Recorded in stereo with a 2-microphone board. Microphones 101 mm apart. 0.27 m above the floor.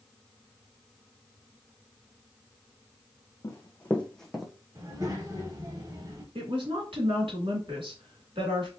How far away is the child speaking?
About 1.0 m.